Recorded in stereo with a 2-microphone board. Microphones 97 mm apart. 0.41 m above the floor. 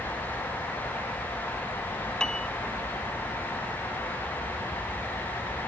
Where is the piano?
10° left (ahead or behind).